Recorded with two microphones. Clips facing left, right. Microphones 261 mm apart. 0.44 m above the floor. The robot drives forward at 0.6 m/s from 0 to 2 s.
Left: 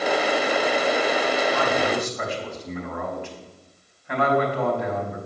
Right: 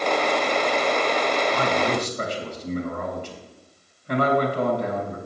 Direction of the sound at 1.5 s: 45° right (ahead or behind).